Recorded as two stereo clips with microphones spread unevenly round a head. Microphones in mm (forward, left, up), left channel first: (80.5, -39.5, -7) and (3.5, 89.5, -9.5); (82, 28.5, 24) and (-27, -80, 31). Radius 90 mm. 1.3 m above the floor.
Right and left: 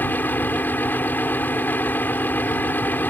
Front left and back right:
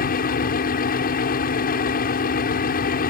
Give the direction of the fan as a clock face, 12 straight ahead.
11 o'clock.